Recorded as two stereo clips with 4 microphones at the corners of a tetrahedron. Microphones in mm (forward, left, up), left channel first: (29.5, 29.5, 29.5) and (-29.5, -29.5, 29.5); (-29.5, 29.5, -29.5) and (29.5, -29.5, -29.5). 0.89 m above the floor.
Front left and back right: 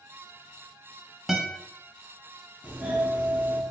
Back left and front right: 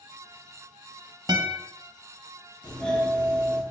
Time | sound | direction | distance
1.3 | a guitar | 45° right | 0.8 m
2.6 | a doorbell | 170° right | 0.9 m